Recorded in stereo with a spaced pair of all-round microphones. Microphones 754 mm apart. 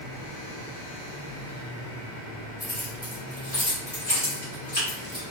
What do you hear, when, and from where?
2.6 s keys jangling: 10° left (ahead or behind), 1.6 m; by 5.2 s 15° left (ahead or behind), 3.5 m